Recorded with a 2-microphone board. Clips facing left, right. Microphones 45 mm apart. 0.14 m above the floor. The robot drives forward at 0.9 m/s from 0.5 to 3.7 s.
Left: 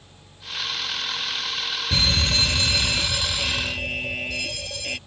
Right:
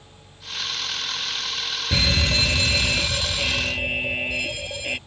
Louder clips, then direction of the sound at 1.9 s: Right 1 dB; 25° right (ahead or behind).